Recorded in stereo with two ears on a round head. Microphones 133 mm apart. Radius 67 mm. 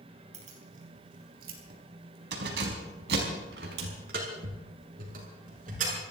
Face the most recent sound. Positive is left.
turn(degrees=-50)  # may be behind; listen again after turning